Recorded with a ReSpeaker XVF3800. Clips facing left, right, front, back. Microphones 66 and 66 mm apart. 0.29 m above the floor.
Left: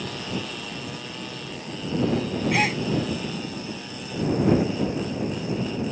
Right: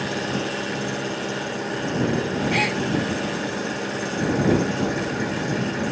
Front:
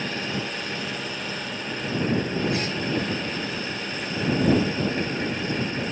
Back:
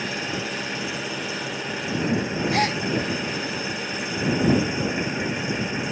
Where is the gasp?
175° left.